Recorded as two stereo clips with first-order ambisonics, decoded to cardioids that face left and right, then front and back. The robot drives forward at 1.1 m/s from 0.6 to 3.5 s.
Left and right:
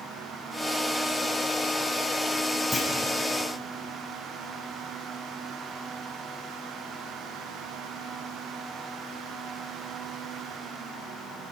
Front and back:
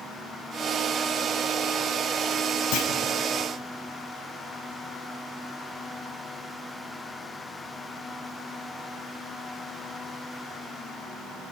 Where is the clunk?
5° left, 3.5 m.